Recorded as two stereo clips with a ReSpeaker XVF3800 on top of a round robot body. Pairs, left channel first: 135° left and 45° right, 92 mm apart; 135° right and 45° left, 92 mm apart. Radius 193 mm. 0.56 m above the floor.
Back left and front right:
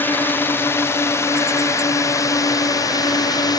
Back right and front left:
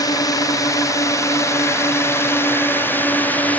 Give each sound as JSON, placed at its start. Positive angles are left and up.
{"t": 0.0, "sound": "a drone", "azimuth_deg": -165}